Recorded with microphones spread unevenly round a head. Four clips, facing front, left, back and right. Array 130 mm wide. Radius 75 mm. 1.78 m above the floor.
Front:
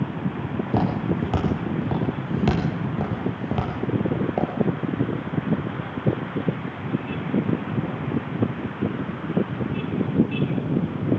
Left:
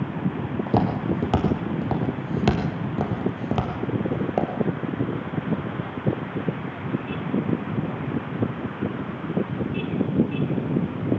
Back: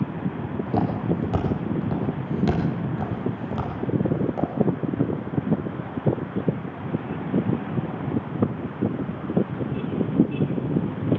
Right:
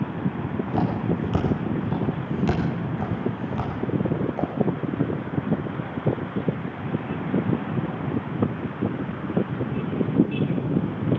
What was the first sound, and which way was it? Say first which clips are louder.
Footsteps: left 3 dB, even; 100° left.